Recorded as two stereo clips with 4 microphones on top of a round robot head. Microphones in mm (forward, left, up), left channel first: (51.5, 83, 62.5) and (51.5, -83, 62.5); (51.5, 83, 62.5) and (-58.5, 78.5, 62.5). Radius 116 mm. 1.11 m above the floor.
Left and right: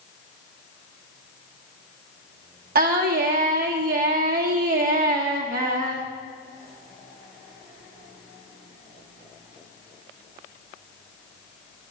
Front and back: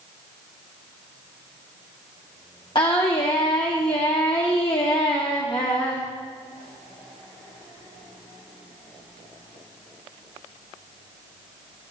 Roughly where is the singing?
Ahead right.